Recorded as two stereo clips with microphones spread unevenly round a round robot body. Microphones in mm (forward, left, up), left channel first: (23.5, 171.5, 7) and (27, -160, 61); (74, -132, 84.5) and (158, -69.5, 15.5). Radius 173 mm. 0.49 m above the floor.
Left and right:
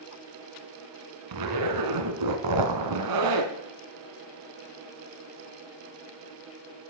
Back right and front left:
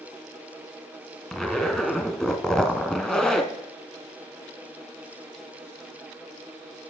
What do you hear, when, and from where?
1.3 s a zipper: 60° right, 1.5 m